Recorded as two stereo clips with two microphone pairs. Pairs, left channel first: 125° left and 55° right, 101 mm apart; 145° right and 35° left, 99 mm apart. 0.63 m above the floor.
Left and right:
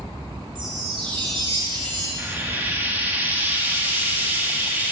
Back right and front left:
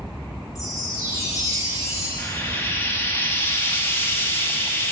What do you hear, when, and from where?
0.6 s a chime: 90° right, 2.5 m
2.2 s frying: 105° right, 1.0 m